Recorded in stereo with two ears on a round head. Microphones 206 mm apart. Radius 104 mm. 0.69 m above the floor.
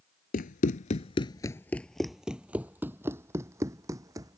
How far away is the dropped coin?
I don't hear a dropped coin.